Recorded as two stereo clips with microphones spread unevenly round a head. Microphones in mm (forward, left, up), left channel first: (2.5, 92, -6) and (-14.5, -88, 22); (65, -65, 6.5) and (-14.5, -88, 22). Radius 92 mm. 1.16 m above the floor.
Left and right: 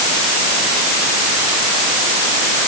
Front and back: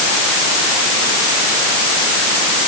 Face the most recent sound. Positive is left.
No sound to turn to.